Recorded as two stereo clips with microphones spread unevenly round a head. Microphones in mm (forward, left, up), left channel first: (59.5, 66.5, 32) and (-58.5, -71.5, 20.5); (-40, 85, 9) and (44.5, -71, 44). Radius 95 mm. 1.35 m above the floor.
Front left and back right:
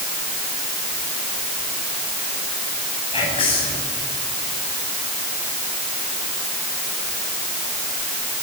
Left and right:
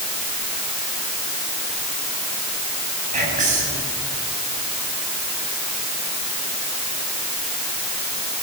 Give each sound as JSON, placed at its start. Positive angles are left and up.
{"t": 3.1, "sound": "whispering", "azimuth_deg": -15, "distance_m": 9.0}